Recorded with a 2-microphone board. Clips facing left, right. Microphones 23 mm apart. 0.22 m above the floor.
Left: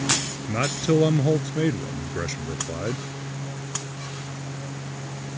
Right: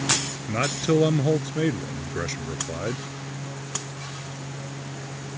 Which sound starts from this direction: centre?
A man speaking, at 0.5 s.